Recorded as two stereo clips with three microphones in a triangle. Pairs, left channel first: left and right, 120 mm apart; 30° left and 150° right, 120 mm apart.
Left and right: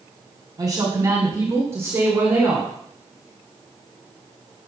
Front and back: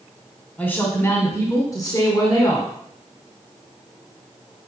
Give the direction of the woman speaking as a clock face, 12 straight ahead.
1 o'clock.